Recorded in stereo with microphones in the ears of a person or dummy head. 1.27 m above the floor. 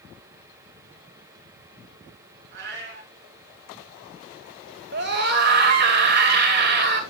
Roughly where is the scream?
Right.